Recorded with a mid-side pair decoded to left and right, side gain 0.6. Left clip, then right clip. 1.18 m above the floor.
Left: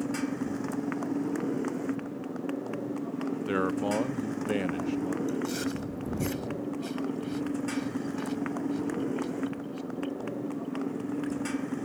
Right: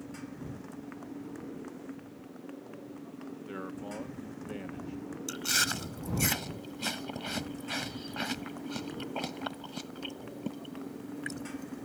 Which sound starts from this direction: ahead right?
Chewing, at 5.3 s.